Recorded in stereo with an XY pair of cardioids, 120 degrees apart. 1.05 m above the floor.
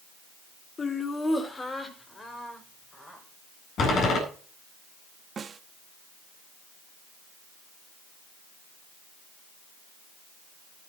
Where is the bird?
No bird in this recording.